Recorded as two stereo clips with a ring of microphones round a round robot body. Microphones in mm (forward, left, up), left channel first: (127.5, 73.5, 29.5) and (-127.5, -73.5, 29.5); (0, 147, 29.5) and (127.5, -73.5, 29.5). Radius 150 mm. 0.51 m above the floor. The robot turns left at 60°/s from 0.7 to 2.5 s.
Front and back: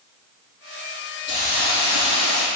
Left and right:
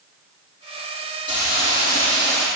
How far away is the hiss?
About 4.5 m.